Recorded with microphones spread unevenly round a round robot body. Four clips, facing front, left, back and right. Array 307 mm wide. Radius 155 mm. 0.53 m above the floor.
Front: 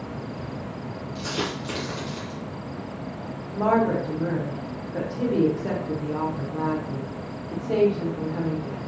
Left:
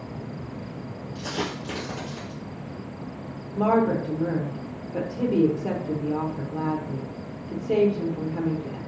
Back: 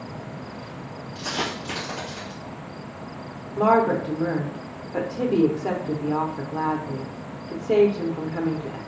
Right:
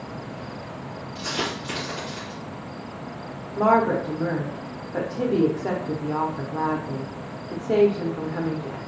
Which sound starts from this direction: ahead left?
A dropped coin, at 1.1 s.